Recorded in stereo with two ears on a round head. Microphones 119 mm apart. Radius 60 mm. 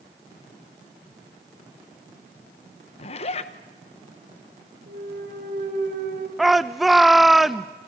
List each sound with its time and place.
3.0 s a zipper: 50° left (ahead or behind), 1.1 m
4.9 s a clunk: 65° right (ahead or behind), 3 m
6.4 s a shout: centre (ahead or behind), 0.5 m